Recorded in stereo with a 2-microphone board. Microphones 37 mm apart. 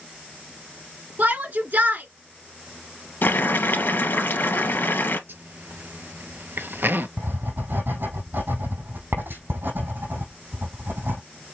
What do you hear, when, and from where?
1.2 s a shout: 55° right (ahead or behind), 2 m
3.2 s boiling: 70° left (ahead or behind), 2 m
5.3 s a zipper: 70° right (ahead or behind), 0.7 m
7.2 s writing: 70° right (ahead or behind), 3.5 m